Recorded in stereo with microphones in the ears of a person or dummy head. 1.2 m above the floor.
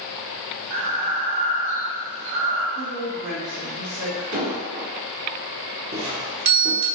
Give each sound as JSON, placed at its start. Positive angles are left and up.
{"t": 0.7, "sound": "breathing", "side_deg": -75, "distance_m": 1.6}
{"t": 2.8, "sound": "a woman speaking", "side_deg": -55, "distance_m": 1.9}
{"t": 4.3, "sound": "an explosion", "side_deg": -80, "distance_m": 1.8}
{"t": 5.9, "sound": "a doorbell", "side_deg": -35, "distance_m": 0.8}